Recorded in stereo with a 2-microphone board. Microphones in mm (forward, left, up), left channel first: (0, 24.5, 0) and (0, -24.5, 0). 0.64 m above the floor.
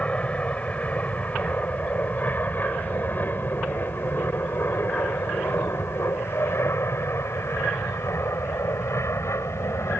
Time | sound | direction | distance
0.0 | an aircraft | 25° left (ahead or behind) | ?